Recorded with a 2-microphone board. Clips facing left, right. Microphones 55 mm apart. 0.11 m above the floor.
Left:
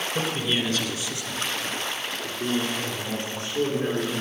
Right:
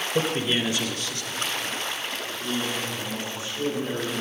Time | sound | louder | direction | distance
0.1 | a man speaking | right 3 dB | 40° right (ahead or behind) | 1.5 m